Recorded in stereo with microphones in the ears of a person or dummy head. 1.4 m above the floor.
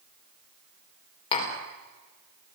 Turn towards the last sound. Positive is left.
turn(degrees=30)  # may be behind; listen again after turning